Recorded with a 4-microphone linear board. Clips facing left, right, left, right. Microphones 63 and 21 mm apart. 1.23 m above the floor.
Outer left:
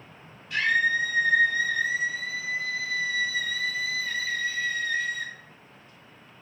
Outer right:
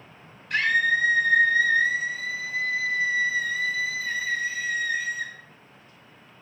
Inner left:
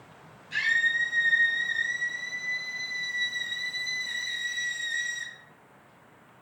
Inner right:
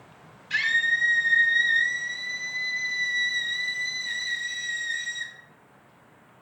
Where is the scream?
60° right (ahead or behind), 3 m; by 5.3 s 5° right (ahead or behind), 1.9 m.